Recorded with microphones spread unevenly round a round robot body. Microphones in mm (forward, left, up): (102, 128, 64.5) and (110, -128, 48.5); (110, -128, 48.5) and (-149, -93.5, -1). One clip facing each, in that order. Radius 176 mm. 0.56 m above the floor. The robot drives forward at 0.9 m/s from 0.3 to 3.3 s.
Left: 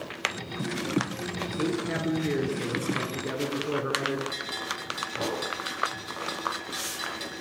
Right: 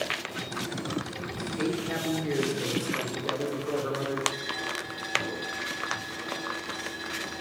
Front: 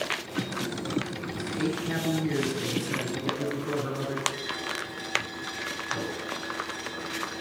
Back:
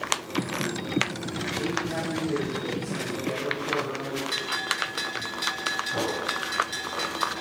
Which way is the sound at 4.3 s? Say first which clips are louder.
Right 2 dB, even; 140° left.